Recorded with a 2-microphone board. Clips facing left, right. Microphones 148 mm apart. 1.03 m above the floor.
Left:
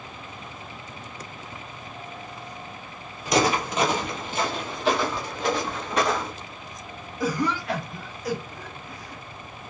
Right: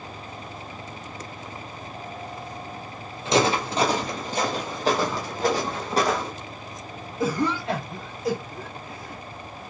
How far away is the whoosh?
About 2 m.